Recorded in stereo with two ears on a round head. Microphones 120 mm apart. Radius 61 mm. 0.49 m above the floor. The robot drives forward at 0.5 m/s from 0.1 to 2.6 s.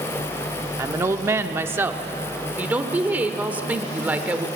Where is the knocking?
I don't hear knocking.